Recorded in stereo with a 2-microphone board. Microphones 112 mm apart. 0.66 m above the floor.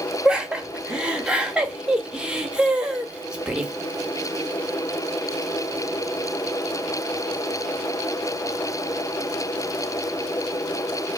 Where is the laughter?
10° right (ahead or behind), 0.6 m.